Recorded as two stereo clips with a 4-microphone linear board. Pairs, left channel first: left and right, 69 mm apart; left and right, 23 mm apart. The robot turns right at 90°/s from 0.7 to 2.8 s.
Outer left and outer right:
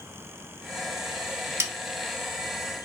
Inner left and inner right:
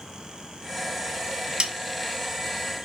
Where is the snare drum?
45° right (ahead or behind), 1.3 m; by 1.7 s 55° right (ahead or behind), 1.3 m.